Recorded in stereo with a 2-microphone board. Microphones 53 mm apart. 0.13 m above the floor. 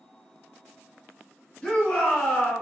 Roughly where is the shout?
Centre.